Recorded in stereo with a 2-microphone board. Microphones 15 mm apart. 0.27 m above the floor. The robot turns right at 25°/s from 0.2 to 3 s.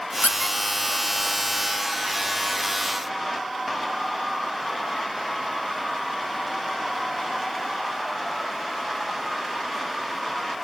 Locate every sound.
0.2 s a squeak: 35° left (ahead or behind), 1.1 m; by 0.6 s 45° left (ahead or behind), 1.1 m